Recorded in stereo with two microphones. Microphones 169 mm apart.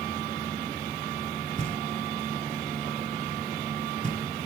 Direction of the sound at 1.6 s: 50° right (ahead or behind).